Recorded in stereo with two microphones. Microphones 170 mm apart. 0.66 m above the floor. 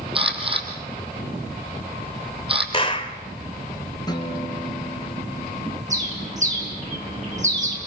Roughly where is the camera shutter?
Right.